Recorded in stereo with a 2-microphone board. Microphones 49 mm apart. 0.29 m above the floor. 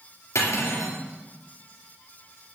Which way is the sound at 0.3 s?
80° left.